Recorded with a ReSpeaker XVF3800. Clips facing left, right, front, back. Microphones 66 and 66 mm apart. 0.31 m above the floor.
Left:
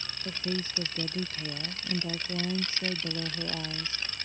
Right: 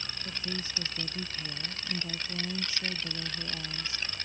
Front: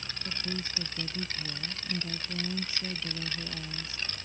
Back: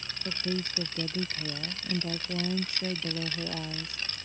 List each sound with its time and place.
0.2 s a woman speaking: 145° left